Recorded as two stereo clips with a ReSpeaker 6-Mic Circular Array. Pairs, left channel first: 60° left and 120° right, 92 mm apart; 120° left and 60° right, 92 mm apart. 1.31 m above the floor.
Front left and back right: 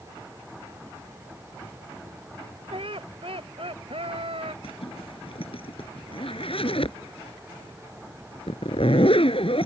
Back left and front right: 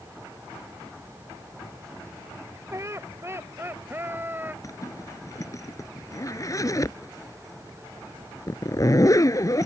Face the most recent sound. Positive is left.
turn(degrees=70)